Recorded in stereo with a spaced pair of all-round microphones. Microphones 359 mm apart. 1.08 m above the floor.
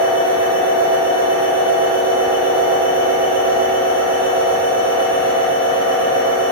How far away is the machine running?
About 3 m.